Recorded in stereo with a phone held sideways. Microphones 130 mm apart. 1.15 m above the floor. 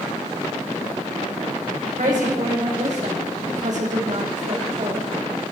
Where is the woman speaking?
75° right (ahead or behind), 5 m; by 5.1 s 55° right (ahead or behind), 2.5 m.